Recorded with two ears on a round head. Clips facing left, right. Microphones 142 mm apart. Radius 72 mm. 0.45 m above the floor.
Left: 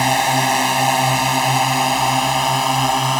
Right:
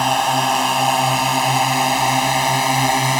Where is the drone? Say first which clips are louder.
Even; 10° left (ahead or behind); by 3.2 s 10° right (ahead or behind).